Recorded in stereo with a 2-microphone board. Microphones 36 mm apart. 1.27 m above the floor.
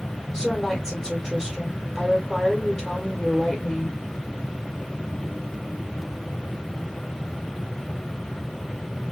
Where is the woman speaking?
5° right (ahead or behind), 0.7 m.